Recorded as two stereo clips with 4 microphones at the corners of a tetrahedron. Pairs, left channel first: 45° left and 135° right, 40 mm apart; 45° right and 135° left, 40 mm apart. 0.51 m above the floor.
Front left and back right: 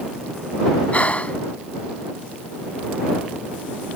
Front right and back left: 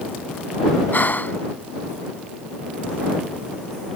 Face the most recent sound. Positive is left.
turn(degrees=-10)